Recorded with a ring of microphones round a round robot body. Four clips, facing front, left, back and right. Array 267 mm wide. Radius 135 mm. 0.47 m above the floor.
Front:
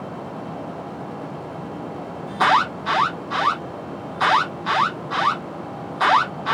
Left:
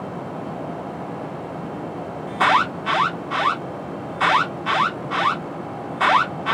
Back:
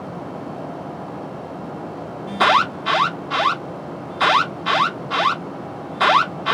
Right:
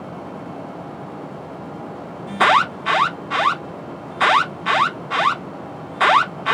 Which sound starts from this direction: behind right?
An alarm, at 2.3 s.